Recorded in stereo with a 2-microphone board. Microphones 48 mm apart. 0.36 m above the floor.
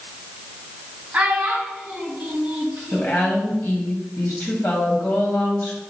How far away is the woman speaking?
About 2 m.